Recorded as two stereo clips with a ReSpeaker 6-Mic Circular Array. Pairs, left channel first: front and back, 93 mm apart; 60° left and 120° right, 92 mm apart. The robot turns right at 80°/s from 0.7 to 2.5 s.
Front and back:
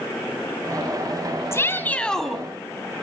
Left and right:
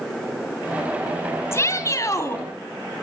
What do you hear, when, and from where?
1.5 s a shout: 30° left, 1.8 m; by 2.4 s 100° left, 1.8 m